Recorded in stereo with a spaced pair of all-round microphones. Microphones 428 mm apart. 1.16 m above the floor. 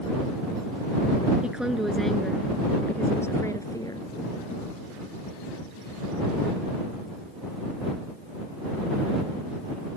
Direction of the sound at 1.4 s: Centre (ahead or behind).